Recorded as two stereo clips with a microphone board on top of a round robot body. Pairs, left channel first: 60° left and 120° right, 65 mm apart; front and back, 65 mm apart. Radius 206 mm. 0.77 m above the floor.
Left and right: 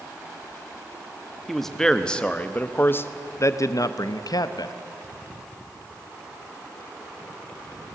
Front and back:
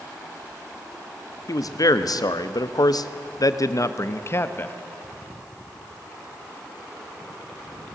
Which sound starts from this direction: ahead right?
A man speaking, at 1.5 s.